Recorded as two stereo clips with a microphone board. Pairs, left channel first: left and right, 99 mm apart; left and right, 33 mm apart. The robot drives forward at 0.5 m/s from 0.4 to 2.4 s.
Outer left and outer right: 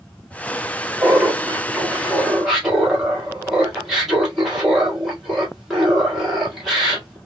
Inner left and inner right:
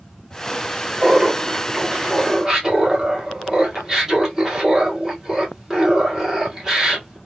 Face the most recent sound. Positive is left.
turn(degrees=-5)  # may be behind; listen again after turning